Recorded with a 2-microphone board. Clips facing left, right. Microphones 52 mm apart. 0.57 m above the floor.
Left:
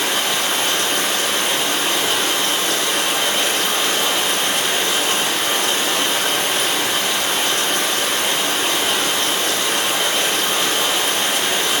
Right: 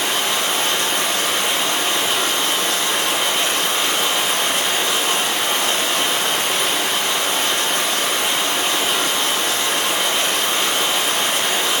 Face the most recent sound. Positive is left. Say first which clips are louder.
# even
turn(degrees=-5)  # may be behind; listen again after turning